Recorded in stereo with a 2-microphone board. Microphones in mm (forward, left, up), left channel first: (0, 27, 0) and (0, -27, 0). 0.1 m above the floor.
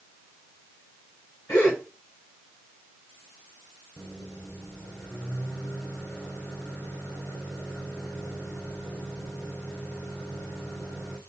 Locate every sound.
1.5 s a gasp: 55° left (ahead or behind), 6 m
4.0 s a microwave: 55° left (ahead or behind), 3.5 m